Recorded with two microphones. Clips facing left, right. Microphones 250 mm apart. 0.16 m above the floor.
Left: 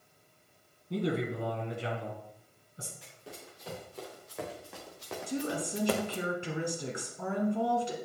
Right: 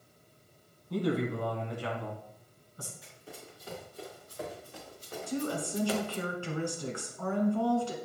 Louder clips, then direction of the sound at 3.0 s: Even; 90° left.